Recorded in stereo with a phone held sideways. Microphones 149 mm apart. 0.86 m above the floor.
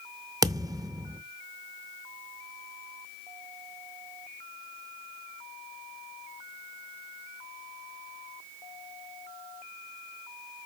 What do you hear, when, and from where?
0.4 s a thud: 25° right (ahead or behind), 0.6 m